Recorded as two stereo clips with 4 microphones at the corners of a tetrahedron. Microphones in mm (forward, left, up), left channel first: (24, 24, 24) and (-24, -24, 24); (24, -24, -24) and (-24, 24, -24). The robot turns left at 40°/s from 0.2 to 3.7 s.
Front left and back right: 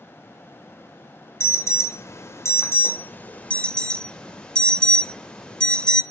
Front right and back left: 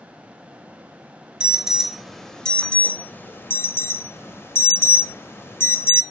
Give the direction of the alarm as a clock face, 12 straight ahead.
10 o'clock.